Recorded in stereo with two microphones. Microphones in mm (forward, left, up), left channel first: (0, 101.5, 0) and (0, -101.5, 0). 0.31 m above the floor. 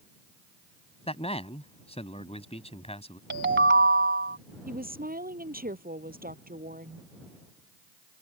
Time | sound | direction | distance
1.1 | a man speaking | 30° left (ahead or behind) | ?
3.3 | a ringtone | 70° right (ahead or behind) | ?
4.7 | a woman speaking | 45° right (ahead or behind) | ?